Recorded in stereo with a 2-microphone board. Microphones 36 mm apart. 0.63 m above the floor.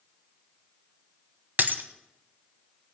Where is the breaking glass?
65° right (ahead or behind), 1.1 m.